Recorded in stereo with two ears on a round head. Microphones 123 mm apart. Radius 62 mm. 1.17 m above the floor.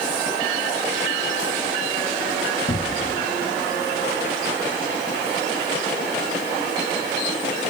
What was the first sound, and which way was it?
A cupboard door, 50° left (ahead or behind).